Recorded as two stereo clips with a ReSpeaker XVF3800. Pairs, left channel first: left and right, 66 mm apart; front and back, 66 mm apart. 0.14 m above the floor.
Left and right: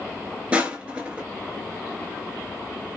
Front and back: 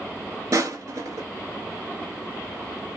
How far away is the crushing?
About 0.8 m.